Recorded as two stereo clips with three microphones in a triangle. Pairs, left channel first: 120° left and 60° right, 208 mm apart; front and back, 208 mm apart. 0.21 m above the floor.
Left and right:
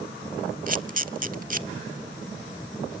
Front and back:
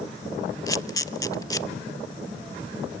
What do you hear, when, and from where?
0.7 s a camera shutter: 65° right, 0.6 m